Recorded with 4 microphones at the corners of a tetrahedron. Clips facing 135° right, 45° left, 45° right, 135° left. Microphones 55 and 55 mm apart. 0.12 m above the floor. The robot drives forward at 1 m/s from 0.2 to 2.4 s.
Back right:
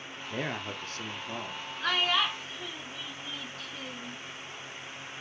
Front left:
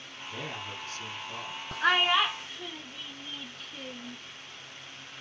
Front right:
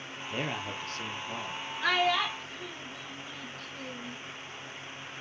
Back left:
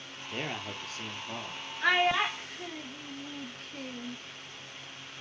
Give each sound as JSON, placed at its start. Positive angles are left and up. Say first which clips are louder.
{"t": 0.3, "sound": "a man speaking", "louder": "back right 4 dB, front right 2 dB", "azimuth_deg": -125, "distance_m": 1.8}
{"t": 1.8, "sound": "a child speaking", "louder": "front left 4 dB, back left 1 dB", "azimuth_deg": 65, "distance_m": 0.9}